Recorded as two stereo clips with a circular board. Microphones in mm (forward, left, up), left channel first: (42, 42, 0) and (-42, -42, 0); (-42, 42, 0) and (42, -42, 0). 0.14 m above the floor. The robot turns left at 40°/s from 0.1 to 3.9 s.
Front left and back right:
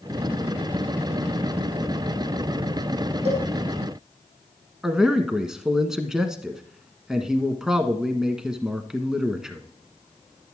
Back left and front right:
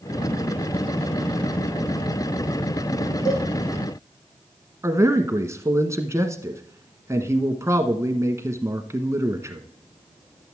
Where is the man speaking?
55° right, 1.1 m.